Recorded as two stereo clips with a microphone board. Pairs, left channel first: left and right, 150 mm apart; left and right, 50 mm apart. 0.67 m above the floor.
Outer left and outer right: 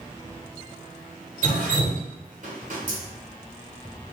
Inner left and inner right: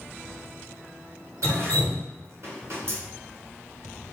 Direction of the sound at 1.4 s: 65° right (ahead or behind).